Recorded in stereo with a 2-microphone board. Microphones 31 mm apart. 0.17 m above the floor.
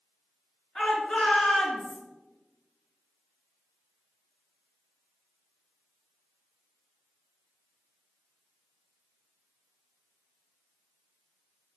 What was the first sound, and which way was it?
A shout, 35° left (ahead or behind).